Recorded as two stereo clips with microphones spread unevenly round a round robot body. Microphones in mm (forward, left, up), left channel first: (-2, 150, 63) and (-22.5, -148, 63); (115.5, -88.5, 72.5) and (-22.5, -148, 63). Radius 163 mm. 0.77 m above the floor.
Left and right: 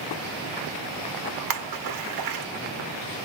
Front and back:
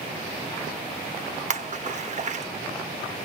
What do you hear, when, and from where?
1.5 s a splash: 115° right, 1.0 m